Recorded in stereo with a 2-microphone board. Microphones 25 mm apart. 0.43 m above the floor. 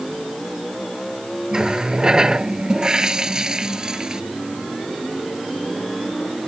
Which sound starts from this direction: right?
A running tap, at 1.5 s.